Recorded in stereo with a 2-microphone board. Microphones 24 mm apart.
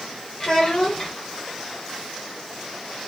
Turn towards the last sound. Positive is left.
turn(degrees=40)  # may be behind; listen again after turning